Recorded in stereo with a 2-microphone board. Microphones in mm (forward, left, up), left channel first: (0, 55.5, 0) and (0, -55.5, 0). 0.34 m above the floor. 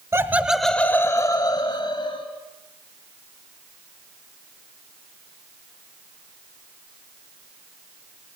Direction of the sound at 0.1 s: 30° right (ahead or behind).